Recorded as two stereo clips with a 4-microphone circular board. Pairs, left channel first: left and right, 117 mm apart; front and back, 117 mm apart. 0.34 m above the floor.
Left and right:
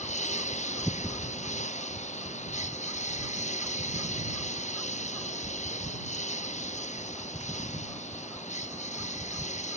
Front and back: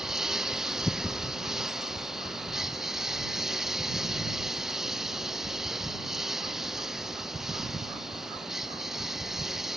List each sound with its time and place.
0.0 s a lawn mower: 95° left